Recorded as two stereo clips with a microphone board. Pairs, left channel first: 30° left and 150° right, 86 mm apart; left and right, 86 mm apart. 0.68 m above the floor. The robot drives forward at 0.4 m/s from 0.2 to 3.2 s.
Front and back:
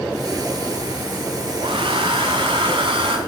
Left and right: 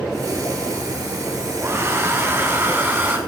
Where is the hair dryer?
150° right, 2.0 m; by 3.2 s 155° right, 2.5 m.